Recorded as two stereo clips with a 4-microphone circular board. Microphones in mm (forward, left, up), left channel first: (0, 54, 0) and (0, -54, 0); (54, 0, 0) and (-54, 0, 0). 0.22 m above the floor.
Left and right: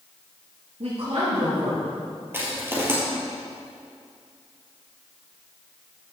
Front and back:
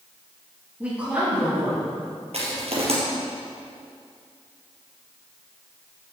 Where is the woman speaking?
100° right, 4 m.